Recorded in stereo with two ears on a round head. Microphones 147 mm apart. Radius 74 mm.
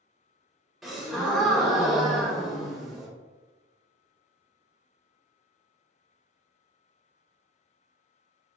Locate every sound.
0.8 s a gasp: centre (ahead or behind), 0.6 m